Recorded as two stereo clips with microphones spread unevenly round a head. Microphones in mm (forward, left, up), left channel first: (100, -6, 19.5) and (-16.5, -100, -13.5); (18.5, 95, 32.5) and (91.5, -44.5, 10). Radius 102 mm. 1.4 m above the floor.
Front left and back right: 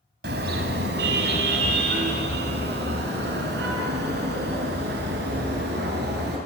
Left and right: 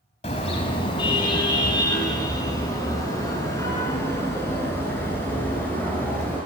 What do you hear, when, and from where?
0.2 s a car horn: 175° left, 4 m; by 6.4 s 165° right, 10 m